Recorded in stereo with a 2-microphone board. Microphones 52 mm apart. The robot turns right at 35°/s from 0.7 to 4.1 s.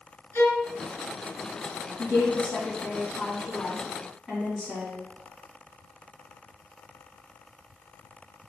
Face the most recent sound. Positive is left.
turn(degrees=160)